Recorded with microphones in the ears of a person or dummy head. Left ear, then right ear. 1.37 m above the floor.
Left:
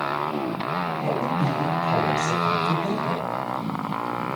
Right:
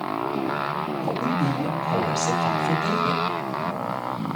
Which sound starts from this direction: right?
A woman speaking, at 1.0 s.